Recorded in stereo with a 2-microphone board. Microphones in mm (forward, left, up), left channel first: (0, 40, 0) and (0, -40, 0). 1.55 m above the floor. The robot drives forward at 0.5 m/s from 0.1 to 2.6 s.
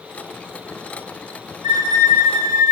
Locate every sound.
1.6 s a violin: 85° right, 3.5 m